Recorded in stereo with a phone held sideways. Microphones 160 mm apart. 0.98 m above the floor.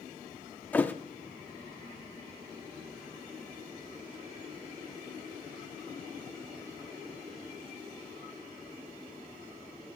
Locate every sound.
0.7 s a thud: 10° left (ahead or behind), 0.6 m